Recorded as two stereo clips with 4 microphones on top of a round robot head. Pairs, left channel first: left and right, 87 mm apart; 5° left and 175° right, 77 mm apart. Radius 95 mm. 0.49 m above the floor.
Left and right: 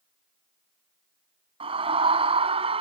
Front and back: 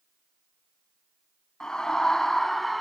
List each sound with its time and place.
1.6 s a scream: 80° right; by 2.8 s 85° right